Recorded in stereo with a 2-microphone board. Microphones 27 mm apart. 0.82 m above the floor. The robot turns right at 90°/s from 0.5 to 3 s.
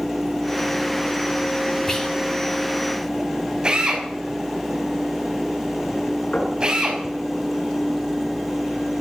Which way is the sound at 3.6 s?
30° right (ahead or behind).